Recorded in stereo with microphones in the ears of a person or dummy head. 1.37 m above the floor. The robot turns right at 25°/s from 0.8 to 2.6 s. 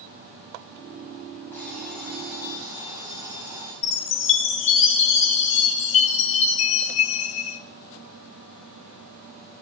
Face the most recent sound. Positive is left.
turn(degrees=35)  # may be behind; listen again after turning